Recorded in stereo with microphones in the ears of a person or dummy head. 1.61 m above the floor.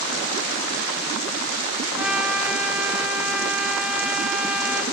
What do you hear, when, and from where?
2.0 s a trumpet: 5° right (ahead or behind), 1.2 m